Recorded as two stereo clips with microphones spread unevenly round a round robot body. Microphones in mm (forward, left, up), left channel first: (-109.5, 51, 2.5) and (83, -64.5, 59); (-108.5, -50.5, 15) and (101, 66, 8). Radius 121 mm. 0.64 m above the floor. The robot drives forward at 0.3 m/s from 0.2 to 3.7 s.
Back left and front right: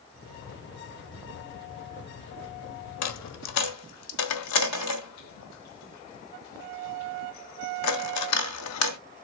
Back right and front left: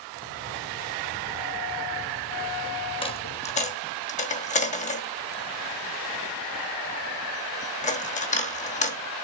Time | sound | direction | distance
3.0 | a dropped coin | 140° left | 0.8 m